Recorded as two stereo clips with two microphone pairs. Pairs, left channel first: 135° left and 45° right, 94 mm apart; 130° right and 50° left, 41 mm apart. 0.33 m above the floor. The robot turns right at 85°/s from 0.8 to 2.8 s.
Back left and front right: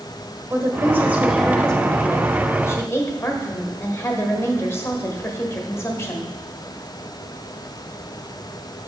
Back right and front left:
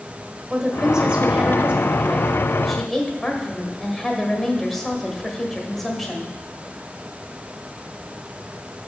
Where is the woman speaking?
15° right, 1.2 m; by 6.3 s 155° left, 1.2 m.